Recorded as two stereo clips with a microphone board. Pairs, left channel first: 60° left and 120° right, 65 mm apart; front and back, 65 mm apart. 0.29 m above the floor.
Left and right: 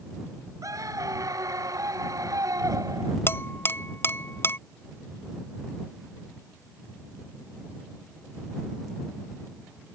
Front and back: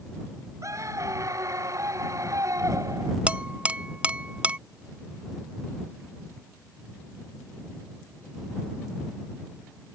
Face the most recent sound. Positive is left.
turn(degrees=110)